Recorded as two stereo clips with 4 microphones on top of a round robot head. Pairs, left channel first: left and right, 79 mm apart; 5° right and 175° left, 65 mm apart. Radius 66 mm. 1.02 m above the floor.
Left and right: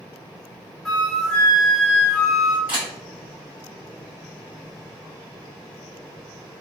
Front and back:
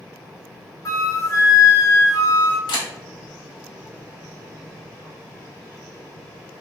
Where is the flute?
10° left, 0.8 m.